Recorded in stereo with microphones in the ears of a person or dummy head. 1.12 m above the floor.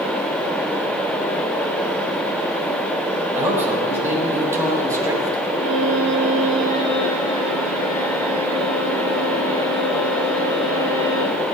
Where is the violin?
40° right (ahead or behind), 3.5 m.